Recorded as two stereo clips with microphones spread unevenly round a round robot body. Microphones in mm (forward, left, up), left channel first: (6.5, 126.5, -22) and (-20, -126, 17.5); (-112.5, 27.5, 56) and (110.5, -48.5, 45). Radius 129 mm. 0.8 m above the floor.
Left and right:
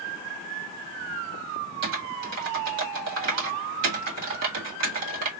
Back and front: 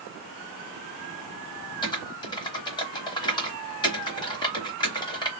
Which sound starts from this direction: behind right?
Typing on a keyboard, at 1.8 s.